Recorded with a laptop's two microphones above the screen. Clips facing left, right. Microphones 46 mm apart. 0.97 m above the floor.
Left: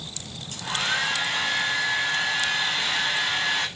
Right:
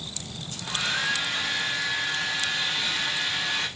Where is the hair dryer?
50° left (ahead or behind), 8 m.